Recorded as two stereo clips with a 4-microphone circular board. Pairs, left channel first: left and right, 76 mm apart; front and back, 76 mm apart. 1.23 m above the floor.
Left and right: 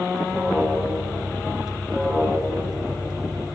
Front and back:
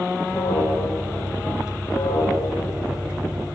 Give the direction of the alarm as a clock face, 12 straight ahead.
12 o'clock.